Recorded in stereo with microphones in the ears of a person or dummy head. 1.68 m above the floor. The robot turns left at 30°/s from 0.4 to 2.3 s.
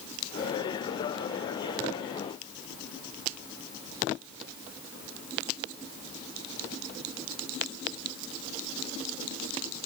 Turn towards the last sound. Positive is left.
No sound to turn to.